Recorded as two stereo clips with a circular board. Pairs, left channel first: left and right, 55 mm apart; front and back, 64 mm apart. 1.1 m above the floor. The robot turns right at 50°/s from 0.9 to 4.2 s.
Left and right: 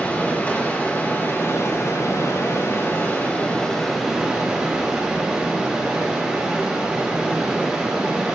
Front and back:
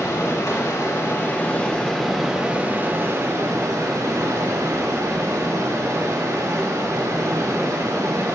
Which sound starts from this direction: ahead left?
Running water, at 0.0 s.